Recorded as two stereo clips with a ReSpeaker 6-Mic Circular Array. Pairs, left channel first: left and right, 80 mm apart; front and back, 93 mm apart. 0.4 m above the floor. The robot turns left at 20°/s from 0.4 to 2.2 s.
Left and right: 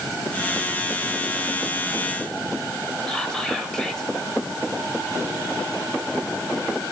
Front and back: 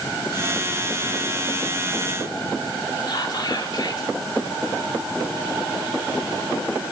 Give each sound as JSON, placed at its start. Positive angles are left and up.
{"t": 3.1, "sound": "whispering", "azimuth_deg": 10, "distance_m": 1.8}